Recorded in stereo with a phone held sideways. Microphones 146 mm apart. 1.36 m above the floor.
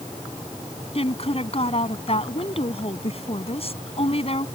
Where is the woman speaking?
45° left (ahead or behind).